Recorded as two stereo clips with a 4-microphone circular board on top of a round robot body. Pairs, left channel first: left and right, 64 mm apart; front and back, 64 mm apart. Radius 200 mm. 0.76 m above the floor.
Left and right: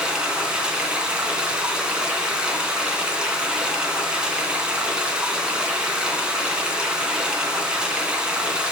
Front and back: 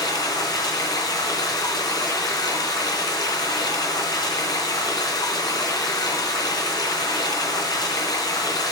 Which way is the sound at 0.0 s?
15° right.